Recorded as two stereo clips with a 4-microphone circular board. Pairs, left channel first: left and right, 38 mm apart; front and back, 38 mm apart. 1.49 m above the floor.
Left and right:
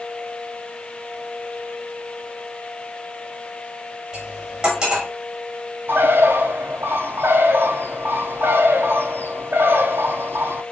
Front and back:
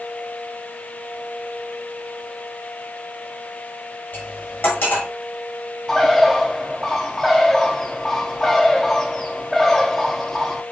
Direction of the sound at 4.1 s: 25° right.